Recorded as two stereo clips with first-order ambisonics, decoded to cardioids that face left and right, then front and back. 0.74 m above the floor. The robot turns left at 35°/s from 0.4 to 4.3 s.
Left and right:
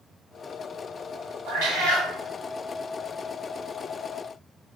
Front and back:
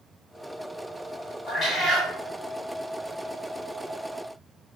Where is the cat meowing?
70° right, 1.4 m; by 2.1 s 95° right, 1.4 m.